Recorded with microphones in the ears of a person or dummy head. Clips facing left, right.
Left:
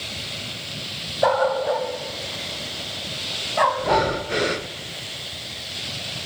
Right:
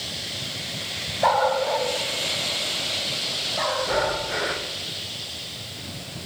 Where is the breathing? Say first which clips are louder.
Left 3 dB; 35° left (ahead or behind), 0.7 m.